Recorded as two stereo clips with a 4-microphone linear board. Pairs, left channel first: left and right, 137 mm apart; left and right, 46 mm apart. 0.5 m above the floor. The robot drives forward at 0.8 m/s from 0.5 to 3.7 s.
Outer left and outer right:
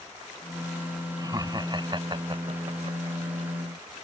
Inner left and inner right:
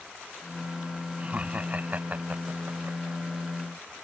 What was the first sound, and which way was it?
Laughter, 30° right (ahead or behind).